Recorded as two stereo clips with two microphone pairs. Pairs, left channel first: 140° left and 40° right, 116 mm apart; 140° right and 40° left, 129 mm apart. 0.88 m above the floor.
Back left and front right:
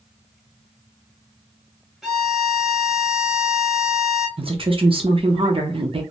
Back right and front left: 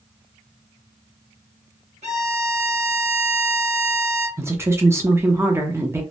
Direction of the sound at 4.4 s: 25° right.